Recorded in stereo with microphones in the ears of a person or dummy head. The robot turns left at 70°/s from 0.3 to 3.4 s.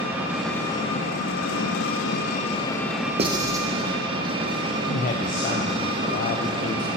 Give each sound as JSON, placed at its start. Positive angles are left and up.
{"t": 0.0, "sound": "an engine running", "azimuth_deg": -170, "distance_m": 1.3}
{"t": 3.2, "sound": "writing", "side_deg": -35, "distance_m": 0.7}
{"t": 4.9, "sound": "a man speaking", "side_deg": 45, "distance_m": 0.6}